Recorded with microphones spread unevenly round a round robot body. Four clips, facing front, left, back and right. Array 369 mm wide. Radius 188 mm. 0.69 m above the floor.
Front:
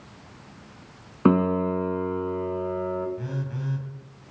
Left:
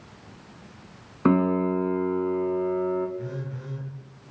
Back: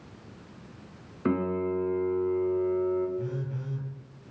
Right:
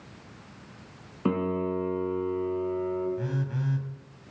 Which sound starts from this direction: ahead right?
A phone buzzing, at 3.2 s.